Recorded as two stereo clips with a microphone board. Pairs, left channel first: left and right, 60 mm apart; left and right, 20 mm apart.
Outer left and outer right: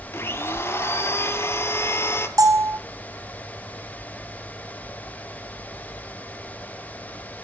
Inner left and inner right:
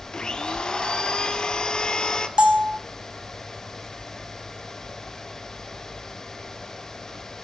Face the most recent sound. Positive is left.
turn(degrees=-70)  # may be behind; listen again after turning